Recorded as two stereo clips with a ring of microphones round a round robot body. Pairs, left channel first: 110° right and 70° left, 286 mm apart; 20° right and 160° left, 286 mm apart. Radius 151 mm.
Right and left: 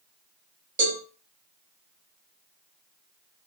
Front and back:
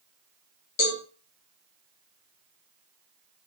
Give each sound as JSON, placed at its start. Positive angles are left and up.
{"t": 0.8, "sound": "a cowbell", "azimuth_deg": 10, "distance_m": 0.7}